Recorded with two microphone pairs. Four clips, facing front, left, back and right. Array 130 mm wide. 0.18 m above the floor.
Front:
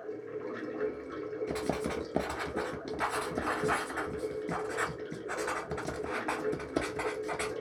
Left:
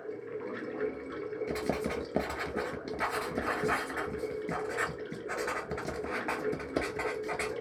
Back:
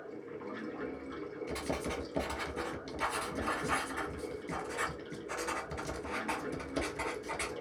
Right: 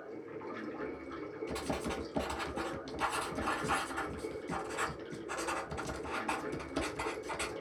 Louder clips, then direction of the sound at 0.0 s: Left 5 dB, front 5 dB; 65° left.